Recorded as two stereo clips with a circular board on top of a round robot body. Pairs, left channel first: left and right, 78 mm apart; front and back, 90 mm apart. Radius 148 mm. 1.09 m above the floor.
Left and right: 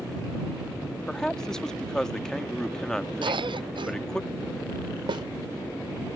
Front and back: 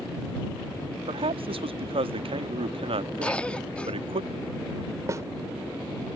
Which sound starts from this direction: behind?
A man speaking, at 1.1 s.